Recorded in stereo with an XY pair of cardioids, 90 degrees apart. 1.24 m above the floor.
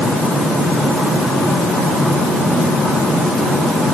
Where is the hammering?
I don't hear hammering.